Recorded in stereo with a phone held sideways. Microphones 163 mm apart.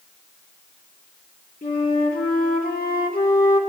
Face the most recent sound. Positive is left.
turn(degrees=60)  # may be behind; listen again after turning